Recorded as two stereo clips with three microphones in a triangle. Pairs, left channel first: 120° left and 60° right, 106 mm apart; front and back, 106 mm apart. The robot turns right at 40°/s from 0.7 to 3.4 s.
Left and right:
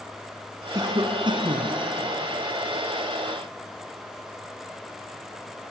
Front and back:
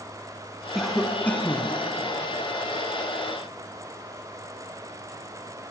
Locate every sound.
0.8 s a cough: 95° right, 1.7 m; by 1.8 s 55° right, 1.7 m